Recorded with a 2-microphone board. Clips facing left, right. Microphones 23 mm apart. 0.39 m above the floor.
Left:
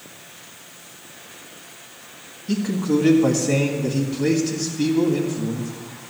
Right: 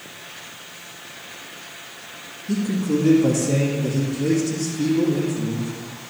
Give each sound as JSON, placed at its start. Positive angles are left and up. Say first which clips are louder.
{"t": 2.5, "sound": "a man speaking", "louder": "left 1 dB", "side_deg": 55, "distance_m": 2.0}